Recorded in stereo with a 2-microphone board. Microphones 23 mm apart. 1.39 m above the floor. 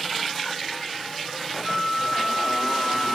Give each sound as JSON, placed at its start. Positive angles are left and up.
{"t": 1.6, "sound": "a flute", "side_deg": -25, "distance_m": 1.2}